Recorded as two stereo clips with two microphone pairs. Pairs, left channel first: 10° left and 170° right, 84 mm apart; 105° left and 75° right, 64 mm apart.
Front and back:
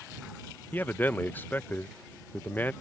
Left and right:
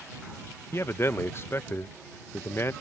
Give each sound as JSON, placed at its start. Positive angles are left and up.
{"t": 0.7, "sound": "a man speaking", "azimuth_deg": 70}